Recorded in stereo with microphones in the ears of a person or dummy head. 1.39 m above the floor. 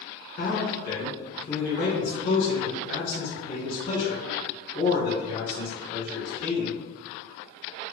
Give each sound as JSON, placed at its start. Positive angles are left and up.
{"t": 0.4, "sound": "a man speaking", "side_deg": 35, "distance_m": 1.1}